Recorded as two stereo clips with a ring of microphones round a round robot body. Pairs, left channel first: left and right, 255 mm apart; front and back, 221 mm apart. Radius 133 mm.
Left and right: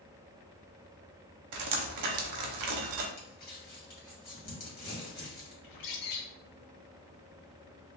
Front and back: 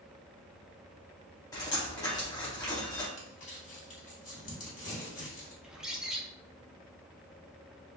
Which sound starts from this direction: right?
Dripping, at 1.5 s.